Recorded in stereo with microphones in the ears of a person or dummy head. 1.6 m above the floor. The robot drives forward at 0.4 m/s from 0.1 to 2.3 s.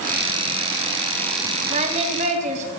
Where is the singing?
40° right (ahead or behind), 3 m; by 2.7 s 45° right (ahead or behind), 2.5 m.